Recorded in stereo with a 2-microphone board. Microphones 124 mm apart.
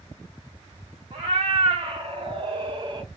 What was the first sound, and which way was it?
A cat meowing, 45° right (ahead or behind).